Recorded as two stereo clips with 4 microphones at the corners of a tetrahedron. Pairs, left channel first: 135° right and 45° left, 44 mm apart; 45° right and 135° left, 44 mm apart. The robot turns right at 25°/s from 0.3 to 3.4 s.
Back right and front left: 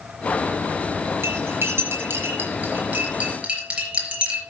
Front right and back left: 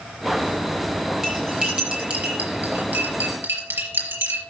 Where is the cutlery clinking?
55° left, 5 m; by 4.4 s 110° left, 5 m.